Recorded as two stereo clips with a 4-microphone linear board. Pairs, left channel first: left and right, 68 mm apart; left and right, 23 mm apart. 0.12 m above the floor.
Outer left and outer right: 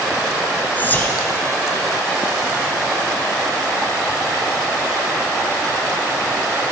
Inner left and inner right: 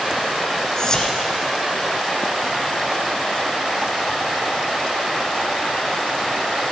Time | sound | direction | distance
0.8 | whispering | 25° left (ahead or behind) | 1.2 m